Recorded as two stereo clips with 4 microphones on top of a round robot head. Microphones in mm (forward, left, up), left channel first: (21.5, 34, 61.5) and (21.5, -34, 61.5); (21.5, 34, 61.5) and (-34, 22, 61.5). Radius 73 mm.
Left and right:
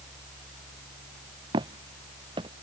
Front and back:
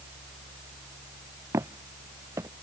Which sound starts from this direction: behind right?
Footsteps, at 1.5 s.